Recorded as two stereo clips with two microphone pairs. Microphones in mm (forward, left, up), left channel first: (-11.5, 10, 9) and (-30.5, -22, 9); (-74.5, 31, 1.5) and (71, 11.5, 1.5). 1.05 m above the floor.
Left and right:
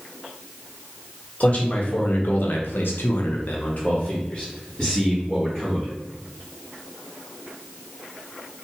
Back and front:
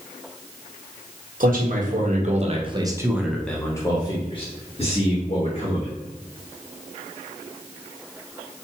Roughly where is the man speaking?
Ahead.